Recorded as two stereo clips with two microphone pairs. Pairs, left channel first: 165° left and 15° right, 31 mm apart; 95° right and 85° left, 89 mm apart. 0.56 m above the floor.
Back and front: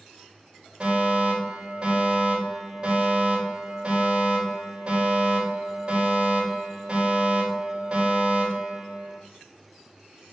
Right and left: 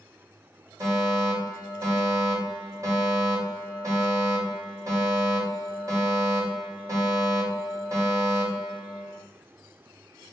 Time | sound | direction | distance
0.8 | a fire alarm | 35° left | 4 m